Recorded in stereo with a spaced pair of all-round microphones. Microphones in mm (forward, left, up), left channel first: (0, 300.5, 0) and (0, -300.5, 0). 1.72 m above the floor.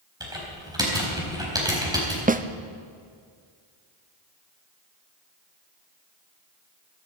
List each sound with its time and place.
0.2 s typing on a keyboard: 5° right (ahead or behind), 4 m
2.3 s a snare drum: 15° right (ahead or behind), 0.5 m